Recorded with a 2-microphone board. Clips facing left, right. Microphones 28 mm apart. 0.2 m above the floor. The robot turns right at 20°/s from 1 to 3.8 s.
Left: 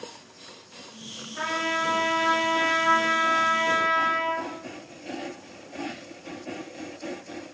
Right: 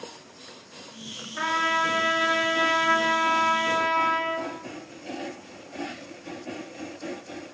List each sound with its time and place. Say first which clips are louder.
1.4 s a trumpet: right 3 dB; 25° right, 3 m; by 4.5 s 25° left, 3 m